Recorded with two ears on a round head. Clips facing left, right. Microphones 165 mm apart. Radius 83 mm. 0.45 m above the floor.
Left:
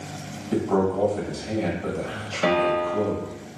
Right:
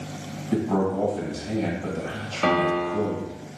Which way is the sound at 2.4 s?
10° left (ahead or behind).